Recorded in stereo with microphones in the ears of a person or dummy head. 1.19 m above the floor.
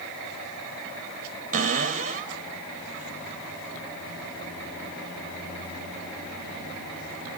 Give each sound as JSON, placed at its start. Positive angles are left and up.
{"t": 1.5, "sound": "a cupboard door", "side_deg": -40, "distance_m": 2.0}